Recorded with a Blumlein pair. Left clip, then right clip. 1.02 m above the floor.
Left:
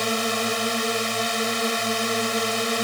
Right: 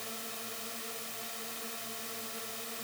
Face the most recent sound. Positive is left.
turn(degrees=50)